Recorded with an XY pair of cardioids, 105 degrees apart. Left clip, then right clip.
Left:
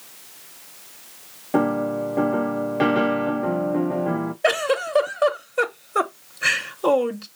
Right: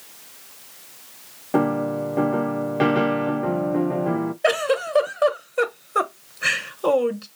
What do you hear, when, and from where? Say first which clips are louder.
1.5 s a piano: even; 5° right, 0.6 m
4.4 s a giggle: even; 5° left, 0.8 m